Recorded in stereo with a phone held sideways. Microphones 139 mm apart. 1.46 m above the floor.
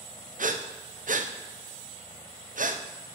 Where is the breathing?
75° right (ahead or behind), 0.7 m.